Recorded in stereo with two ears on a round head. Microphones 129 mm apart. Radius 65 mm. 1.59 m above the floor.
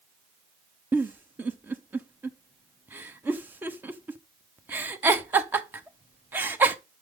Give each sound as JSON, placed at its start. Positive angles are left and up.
{"t": 0.9, "sound": "a giggle", "side_deg": -15, "distance_m": 0.9}